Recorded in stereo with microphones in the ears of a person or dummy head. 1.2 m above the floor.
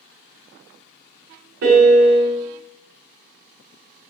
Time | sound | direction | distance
1.6 | a piano | 50° right (ahead or behind) | 0.6 m